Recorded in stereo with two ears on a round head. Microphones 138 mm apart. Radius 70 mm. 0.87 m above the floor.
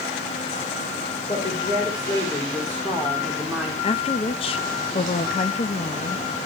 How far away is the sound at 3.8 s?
About 0.7 m.